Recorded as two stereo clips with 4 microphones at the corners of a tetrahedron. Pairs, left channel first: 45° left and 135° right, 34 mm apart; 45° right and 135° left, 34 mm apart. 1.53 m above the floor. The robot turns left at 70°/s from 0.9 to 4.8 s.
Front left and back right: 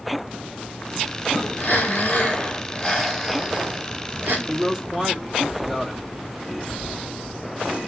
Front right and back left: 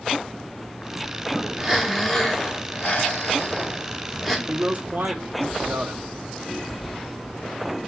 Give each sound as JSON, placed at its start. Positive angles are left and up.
{"t": 1.6, "sound": "breathing", "azimuth_deg": 70, "distance_m": 1.9}
{"t": 4.5, "sound": "a man speaking", "azimuth_deg": 170, "distance_m": 1.7}